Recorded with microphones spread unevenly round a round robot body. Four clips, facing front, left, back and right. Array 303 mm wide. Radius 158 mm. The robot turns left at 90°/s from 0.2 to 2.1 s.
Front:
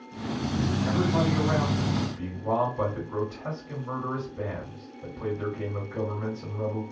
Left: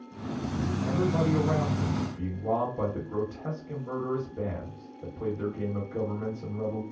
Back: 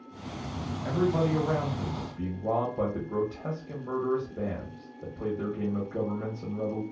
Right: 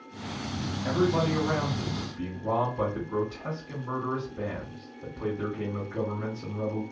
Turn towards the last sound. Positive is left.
turn(degrees=135)